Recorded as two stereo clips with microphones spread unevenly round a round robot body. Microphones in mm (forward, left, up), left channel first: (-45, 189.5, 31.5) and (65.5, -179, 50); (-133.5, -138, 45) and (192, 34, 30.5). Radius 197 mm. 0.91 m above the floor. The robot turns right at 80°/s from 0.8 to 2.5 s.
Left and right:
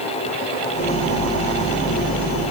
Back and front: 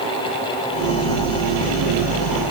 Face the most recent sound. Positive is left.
No sound to turn to.